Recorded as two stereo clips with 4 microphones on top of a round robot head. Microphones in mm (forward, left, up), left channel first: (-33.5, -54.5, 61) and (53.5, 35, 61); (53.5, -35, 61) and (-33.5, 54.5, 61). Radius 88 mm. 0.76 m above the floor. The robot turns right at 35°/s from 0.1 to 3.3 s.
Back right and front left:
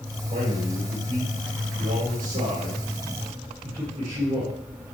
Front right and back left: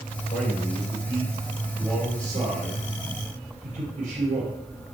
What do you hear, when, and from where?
0.3 s a man speaking: straight ahead, 4.5 m; by 4.5 s 105° left, 4.5 m